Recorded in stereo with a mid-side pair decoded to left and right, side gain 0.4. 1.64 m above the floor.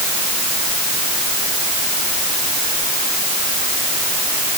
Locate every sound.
Only background noise.